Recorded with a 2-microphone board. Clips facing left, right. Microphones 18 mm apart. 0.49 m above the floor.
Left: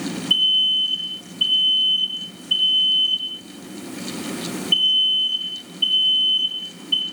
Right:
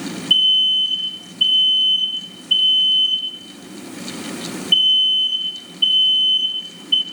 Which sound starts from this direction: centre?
An alarm, at 0.3 s.